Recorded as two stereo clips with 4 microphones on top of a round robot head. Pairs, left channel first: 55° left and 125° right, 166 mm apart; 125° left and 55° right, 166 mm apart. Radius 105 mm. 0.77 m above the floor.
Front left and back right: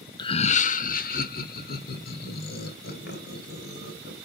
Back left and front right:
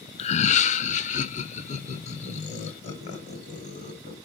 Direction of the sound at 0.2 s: 100° left.